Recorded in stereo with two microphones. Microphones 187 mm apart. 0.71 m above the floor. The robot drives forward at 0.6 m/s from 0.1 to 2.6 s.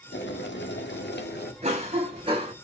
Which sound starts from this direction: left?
Boiling, at 0.1 s.